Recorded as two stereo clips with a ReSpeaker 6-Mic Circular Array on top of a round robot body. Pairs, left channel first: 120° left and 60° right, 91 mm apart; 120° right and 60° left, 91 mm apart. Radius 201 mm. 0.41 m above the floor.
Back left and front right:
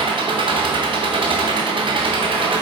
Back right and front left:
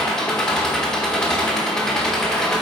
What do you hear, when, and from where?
0.0 s an engine running: 35° right, 1.2 m